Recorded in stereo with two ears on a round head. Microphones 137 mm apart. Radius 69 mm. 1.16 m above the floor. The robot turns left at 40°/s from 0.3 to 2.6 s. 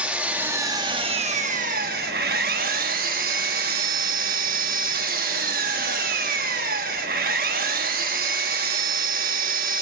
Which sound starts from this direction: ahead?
An engine running, at 0.0 s.